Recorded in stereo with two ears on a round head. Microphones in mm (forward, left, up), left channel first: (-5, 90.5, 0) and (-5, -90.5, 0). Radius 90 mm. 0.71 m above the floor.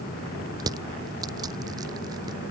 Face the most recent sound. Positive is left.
turn(degrees=-20)  # may be behind; listen again after turning